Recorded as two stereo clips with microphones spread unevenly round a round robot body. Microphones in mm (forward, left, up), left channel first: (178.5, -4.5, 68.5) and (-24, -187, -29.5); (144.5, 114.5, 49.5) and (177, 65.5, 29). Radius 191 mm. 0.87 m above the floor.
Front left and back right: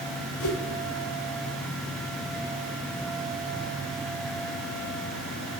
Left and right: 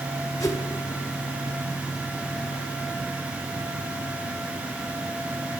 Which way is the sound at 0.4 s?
80° left.